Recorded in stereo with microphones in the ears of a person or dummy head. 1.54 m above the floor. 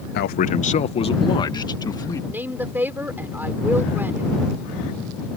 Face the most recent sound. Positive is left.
turn(degrees=-5)  # may be behind; listen again after turning